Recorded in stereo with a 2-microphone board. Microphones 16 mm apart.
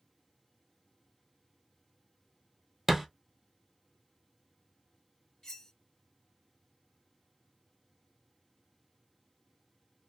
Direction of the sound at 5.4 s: 40° left (ahead or behind).